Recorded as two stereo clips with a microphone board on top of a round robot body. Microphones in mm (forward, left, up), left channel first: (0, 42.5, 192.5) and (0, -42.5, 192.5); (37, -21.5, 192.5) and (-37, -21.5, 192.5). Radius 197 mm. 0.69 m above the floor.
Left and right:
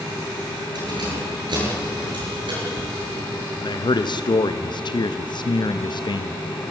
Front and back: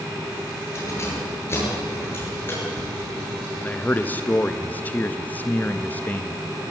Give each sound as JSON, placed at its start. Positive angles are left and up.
{"t": 0.8, "sound": "keys jangling", "azimuth_deg": -55, "distance_m": 10.0}
{"t": 3.6, "sound": "a man speaking", "azimuth_deg": 65, "distance_m": 0.9}